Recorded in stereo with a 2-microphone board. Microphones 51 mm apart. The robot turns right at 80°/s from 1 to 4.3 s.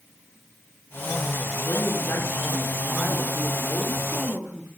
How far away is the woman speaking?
About 8.5 m.